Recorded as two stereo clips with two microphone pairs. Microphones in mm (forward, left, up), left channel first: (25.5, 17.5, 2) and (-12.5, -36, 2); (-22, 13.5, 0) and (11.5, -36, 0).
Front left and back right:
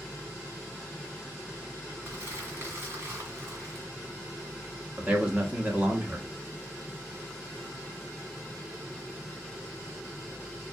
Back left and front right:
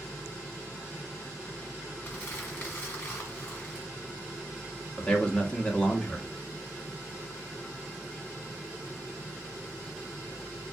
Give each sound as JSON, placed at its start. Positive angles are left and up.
{"t": 2.0, "sound": "crumpling", "azimuth_deg": 180, "distance_m": 1.7}
{"t": 5.0, "sound": "a man speaking", "azimuth_deg": 180, "distance_m": 0.9}